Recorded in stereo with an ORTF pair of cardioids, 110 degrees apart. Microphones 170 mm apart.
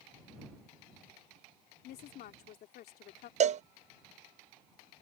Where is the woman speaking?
65° left.